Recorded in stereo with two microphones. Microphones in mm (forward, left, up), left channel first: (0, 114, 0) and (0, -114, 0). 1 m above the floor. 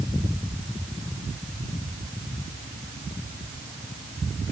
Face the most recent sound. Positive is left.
No sound to turn to.